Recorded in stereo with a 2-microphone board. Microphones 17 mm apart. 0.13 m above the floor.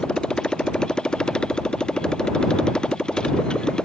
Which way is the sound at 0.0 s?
50° left (ahead or behind).